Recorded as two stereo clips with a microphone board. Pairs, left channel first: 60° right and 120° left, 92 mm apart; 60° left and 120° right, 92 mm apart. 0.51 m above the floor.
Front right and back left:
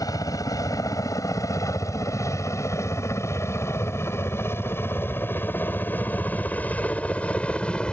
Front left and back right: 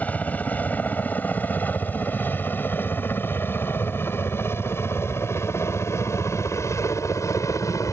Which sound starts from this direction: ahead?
A helicopter, at 0.0 s.